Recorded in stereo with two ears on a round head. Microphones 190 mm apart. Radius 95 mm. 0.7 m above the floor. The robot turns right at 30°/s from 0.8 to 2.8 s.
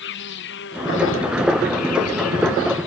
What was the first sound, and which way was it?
An insect, 55° left.